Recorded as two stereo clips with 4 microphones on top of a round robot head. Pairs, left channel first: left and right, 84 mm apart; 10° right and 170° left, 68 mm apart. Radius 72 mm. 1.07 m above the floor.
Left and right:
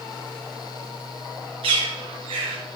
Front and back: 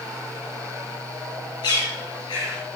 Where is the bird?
55° right, 4.5 m.